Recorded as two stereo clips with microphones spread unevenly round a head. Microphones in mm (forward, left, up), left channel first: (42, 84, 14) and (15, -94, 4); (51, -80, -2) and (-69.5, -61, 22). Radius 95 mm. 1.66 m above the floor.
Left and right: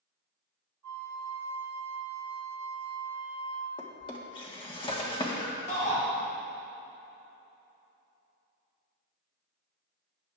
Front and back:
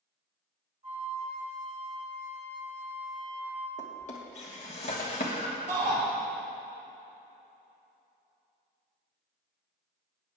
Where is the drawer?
30° left, 1.4 m.